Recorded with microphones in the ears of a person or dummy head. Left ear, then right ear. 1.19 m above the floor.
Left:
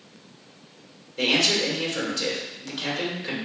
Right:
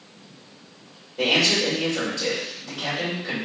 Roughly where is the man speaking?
Left.